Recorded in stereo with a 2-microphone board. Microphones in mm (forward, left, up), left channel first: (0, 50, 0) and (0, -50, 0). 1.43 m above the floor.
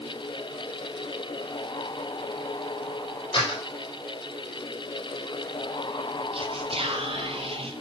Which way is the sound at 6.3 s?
65° right (ahead or behind).